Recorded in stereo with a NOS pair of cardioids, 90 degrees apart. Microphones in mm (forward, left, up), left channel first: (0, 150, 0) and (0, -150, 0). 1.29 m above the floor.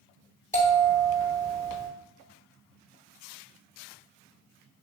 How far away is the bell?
About 2 m.